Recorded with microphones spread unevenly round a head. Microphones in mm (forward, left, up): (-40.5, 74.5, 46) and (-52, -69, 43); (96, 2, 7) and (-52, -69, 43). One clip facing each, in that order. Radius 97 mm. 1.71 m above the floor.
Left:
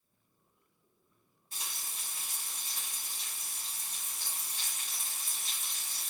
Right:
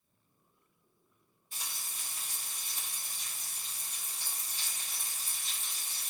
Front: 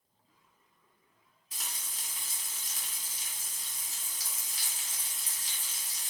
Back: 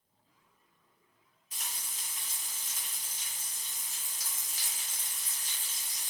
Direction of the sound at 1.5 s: 35° left.